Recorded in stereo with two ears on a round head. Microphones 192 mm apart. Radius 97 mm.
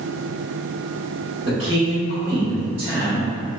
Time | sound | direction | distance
1.5 | a man speaking | 25° right (ahead or behind) | 1.3 m